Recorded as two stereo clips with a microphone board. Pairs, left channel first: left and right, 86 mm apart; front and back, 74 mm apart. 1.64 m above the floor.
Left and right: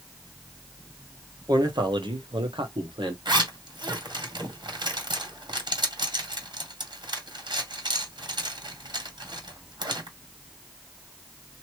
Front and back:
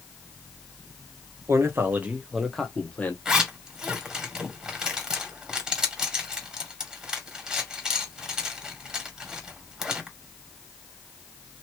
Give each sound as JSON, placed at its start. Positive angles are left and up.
{"t": 1.5, "sound": "a man speaking", "azimuth_deg": -130, "distance_m": 1.3}
{"t": 3.2, "sound": "a zipper", "azimuth_deg": -100, "distance_m": 2.0}